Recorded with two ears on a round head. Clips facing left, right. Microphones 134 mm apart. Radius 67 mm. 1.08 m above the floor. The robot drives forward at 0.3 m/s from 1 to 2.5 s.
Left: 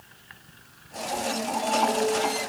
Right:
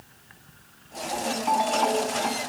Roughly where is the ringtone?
Right.